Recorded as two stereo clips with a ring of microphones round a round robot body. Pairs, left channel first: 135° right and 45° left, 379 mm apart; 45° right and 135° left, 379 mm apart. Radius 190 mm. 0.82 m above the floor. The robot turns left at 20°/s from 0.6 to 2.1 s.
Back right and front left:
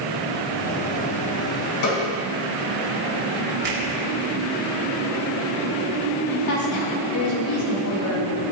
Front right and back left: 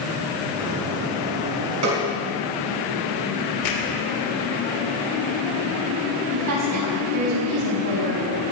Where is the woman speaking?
Straight behind, 5.5 m.